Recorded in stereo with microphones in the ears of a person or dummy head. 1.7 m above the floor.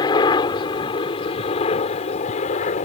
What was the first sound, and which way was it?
A helicopter, 25° left (ahead or behind).